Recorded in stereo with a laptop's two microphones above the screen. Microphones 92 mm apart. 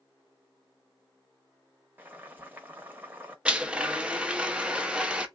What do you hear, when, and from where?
2.0 s boiling: 20° right (ahead or behind), 0.9 m
3.5 s a blender: 10° right (ahead or behind), 0.7 m